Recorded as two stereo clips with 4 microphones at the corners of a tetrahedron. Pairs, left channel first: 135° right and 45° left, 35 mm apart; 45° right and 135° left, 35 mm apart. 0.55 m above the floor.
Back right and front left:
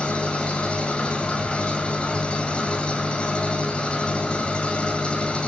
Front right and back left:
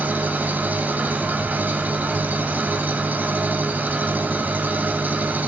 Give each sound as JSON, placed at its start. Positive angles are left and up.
{"t": 0.0, "sound": "an engine running", "azimuth_deg": 170, "distance_m": 2.5}